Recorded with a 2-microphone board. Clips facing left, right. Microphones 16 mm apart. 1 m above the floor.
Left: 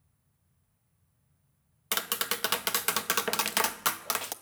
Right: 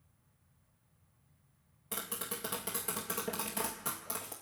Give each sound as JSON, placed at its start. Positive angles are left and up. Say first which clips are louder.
{"t": 1.9, "sound": "tapping", "louder": "left 10 dB", "side_deg": 75, "distance_m": 0.8}